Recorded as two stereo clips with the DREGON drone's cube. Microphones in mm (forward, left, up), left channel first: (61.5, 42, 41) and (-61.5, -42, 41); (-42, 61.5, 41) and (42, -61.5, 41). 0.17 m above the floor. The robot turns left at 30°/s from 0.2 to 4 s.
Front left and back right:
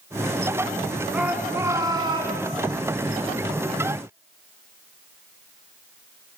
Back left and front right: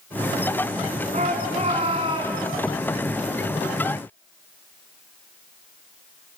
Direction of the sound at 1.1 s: 65° right.